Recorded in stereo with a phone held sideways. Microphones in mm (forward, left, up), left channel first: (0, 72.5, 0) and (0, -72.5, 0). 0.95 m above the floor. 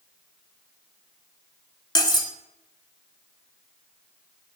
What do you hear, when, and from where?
1.9 s cutlery clinking: 30° left (ahead or behind), 0.9 m